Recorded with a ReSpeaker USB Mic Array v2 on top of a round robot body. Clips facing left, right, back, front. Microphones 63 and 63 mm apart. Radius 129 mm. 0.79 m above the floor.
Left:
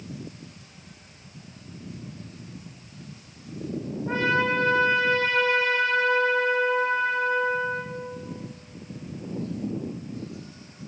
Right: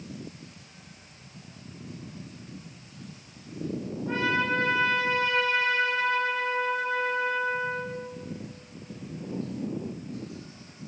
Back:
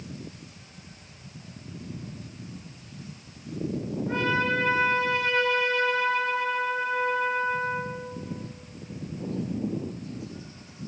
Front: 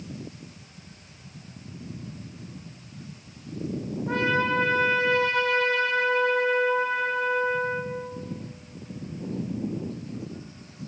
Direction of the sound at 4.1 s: 35° left.